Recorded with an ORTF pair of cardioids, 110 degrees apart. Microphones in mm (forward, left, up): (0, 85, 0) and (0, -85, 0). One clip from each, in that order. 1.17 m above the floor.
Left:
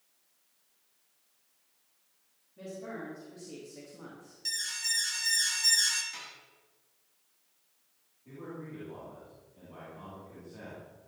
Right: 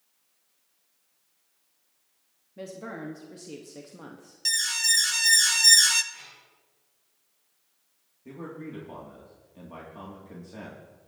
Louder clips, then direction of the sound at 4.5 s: Right 9 dB; 45° right.